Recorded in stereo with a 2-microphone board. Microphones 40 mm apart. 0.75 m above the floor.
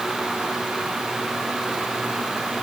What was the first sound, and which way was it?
Only background noise.